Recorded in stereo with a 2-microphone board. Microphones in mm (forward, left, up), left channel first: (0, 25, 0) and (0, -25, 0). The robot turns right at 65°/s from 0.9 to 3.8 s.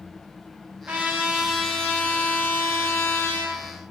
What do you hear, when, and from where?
0.9 s a trumpet: 35° right, 3 m; by 3.6 s 140° left, 3 m